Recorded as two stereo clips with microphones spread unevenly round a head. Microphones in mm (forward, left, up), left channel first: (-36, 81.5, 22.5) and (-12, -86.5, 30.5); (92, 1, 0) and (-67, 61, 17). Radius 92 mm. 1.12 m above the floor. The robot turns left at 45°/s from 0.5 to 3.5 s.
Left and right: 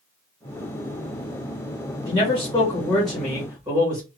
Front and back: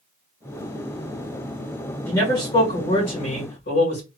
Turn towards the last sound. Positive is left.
turn(degrees=-10)